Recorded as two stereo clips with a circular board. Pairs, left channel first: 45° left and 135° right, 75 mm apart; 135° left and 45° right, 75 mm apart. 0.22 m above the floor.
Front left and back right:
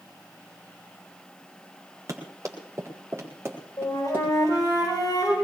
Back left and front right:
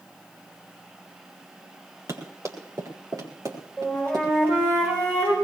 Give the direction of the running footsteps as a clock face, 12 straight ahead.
3 o'clock.